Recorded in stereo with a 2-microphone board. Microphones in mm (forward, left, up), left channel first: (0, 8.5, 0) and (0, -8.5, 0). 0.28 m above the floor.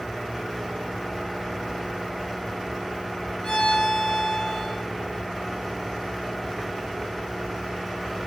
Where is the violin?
45° left (ahead or behind), 2 m.